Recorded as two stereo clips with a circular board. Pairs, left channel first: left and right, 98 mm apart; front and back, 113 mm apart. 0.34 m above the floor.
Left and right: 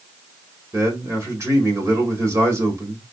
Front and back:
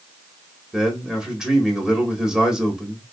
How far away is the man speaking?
About 1.4 m.